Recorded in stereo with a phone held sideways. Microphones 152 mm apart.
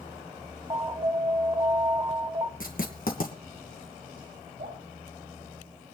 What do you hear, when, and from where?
0.7 s an alarm: 30° right (ahead or behind), 1.0 m
2.6 s writing: 70° left (ahead or behind), 2.5 m
4.6 s dripping: 65° right (ahead or behind), 8 m